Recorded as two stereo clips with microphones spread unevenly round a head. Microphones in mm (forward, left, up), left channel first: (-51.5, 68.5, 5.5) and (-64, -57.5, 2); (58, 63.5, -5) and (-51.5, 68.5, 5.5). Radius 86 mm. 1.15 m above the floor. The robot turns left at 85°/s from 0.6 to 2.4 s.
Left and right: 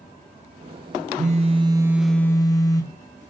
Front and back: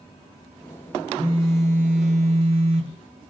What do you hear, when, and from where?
1.2 s a phone buzzing: 110° right, 1.0 m; by 3.3 s 145° left, 1.0 m